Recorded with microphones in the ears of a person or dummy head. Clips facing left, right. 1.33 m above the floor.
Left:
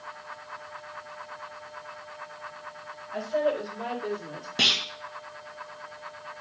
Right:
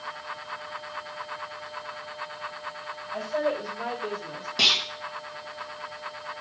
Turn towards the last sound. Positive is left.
turn(degrees=15)  # may be behind; listen again after turning